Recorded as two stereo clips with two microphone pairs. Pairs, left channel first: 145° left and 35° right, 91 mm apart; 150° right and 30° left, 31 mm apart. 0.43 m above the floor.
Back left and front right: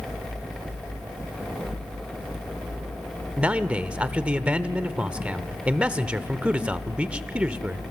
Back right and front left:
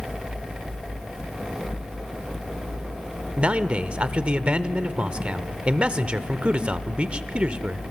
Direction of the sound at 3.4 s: 35° left.